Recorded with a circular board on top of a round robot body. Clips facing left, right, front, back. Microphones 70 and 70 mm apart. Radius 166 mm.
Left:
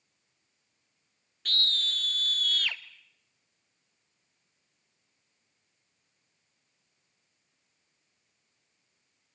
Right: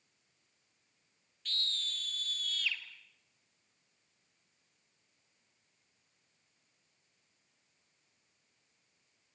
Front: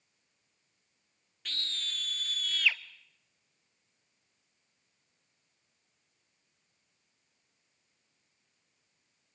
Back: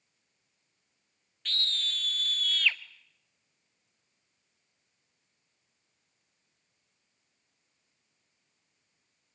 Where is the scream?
80° left, 1.1 m.